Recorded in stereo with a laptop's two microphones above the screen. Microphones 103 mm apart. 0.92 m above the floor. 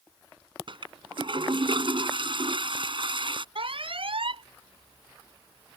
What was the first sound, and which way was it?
A toilet flushing, 55° right (ahead or behind).